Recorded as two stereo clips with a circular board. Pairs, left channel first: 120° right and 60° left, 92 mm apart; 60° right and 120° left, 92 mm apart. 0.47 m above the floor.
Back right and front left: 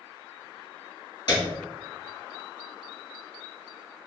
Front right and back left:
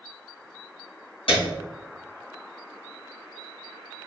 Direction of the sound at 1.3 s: 75° right.